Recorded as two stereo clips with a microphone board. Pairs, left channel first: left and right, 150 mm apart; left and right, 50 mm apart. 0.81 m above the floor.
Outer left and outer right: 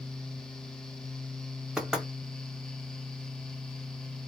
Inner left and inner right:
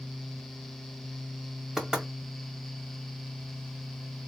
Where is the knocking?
5° right (ahead or behind), 1.4 m.